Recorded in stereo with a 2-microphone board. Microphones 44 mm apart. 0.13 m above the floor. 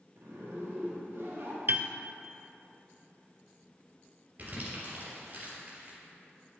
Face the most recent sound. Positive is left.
turn(degrees=-40)  # may be behind; listen again after turning